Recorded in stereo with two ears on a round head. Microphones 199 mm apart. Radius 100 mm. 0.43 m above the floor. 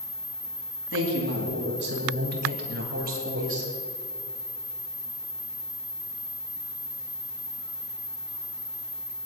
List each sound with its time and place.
0.9 s a woman speaking: 55° right (ahead or behind), 3.5 m; by 3.7 s 35° right (ahead or behind), 2.5 m